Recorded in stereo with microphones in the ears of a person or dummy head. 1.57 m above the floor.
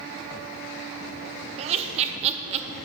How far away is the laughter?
About 0.6 m.